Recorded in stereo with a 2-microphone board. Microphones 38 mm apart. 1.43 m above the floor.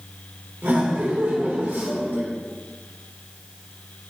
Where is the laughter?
80° right, 1.4 m.